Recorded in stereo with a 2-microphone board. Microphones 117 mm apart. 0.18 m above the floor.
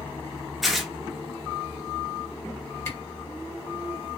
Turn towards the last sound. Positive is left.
turn(degrees=25)  # may be behind; listen again after turning